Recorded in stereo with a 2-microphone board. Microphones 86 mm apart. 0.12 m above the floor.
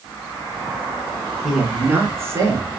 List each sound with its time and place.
1.4 s a man speaking: centre (ahead or behind), 1.3 m; by 2.7 s 35° right (ahead or behind), 1.7 m